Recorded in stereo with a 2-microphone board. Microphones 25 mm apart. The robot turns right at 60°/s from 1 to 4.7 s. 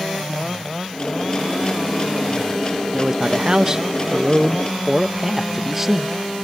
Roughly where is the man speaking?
Centre.